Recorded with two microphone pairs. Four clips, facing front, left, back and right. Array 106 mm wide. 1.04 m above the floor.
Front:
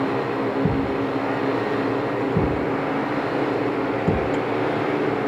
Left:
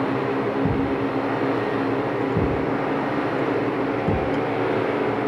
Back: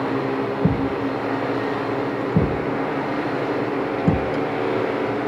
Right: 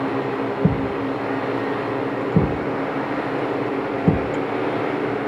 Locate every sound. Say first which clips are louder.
0.6 s a thud: right 1 dB, back 1 dB; 115° right, 5.5 m